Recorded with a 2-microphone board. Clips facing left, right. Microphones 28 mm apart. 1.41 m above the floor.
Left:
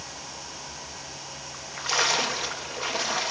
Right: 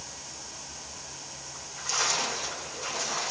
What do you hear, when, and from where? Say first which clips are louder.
1.5 s a splash: left 5 dB; 45° left (ahead or behind), 1.1 m